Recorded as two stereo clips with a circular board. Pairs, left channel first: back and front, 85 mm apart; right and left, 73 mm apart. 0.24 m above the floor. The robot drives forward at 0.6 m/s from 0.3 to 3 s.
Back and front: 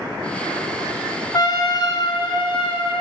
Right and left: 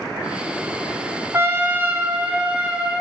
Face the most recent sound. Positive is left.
turn(degrees=165)